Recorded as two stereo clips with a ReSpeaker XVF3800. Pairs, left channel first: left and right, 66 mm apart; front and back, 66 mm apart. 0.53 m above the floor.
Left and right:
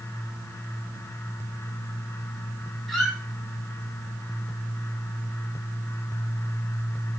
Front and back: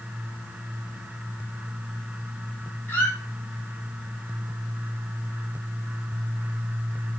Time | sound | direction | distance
2.9 | a squeak | 5° left | 0.7 m